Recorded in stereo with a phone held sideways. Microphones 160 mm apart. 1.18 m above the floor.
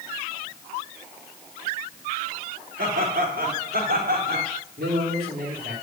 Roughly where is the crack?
No crack in this recording.